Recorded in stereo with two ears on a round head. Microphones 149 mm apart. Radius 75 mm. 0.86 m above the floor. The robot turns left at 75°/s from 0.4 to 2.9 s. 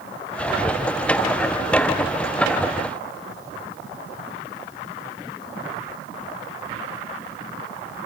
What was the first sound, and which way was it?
Only background noise.